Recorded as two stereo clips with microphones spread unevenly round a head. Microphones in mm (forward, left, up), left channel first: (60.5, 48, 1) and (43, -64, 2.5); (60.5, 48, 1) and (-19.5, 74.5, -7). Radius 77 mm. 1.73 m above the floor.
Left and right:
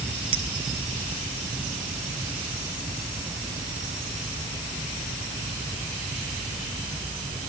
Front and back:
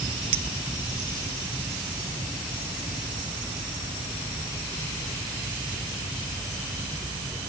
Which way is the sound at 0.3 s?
160° right.